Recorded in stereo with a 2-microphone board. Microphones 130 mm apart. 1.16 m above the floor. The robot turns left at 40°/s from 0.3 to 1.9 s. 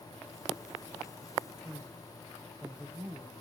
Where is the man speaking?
5° right (ahead or behind), 0.8 m; by 3.3 s 15° right (ahead or behind), 0.8 m.